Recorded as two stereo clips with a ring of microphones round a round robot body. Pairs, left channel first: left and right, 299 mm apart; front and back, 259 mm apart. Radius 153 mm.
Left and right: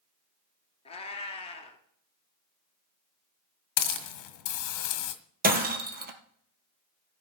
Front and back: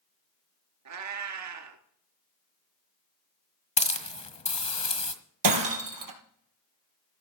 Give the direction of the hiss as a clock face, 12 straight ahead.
10 o'clock.